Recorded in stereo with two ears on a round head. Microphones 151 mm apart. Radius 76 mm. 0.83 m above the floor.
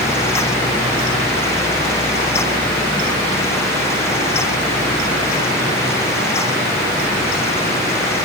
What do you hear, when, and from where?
Only background noise.